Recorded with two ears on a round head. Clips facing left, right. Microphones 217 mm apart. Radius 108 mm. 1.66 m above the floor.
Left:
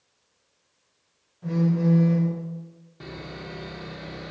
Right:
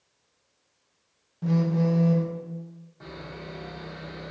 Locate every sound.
1.4 s a phone buzzing: 60° right (ahead or behind), 0.7 m
3.0 s sawing: 45° left (ahead or behind), 0.7 m